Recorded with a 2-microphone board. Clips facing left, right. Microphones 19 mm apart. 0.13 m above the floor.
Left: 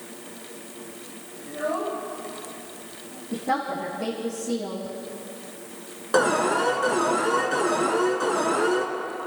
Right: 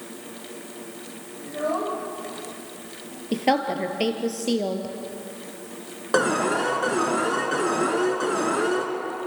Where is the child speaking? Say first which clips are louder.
Right 1 dB; 20° right (ahead or behind), 6 m; by 3.2 s 15° right (ahead or behind), 5 m.